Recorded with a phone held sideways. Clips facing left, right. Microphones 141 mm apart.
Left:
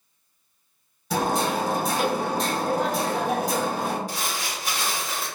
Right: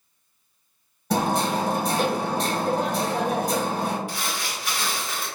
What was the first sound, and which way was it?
Hammering, 55° right (ahead or behind).